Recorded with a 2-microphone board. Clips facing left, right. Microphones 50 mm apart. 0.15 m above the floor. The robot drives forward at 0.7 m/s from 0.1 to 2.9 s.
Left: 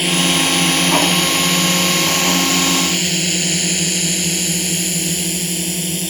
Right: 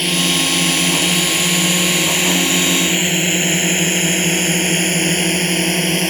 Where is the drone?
5° left (ahead or behind); by 6.1 s 55° right (ahead or behind).